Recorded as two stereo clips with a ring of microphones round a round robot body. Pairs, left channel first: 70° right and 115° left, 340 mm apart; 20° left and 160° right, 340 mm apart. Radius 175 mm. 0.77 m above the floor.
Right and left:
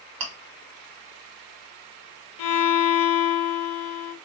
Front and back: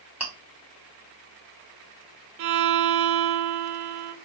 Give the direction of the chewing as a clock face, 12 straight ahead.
8 o'clock.